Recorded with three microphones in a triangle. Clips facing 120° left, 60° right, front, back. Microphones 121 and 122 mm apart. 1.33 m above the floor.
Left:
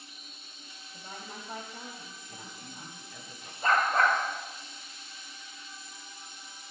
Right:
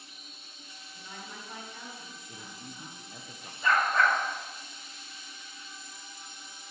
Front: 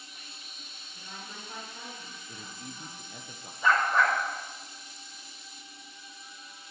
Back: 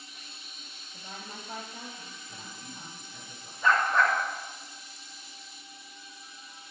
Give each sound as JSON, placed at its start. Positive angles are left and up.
{"t": 0.9, "sound": "a woman speaking", "azimuth_deg": 155, "distance_m": 3.0}
{"t": 2.3, "sound": "a man speaking", "azimuth_deg": 0, "distance_m": 1.0}
{"t": 3.6, "sound": "a dog barking", "azimuth_deg": 80, "distance_m": 3.5}